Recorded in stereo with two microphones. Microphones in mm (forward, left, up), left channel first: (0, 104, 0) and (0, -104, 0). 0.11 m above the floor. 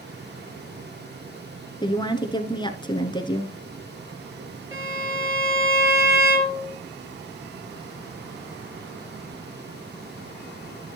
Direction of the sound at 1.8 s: 20° left (ahead or behind).